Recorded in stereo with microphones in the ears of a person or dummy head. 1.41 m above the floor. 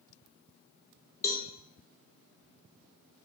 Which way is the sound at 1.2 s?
15° left (ahead or behind).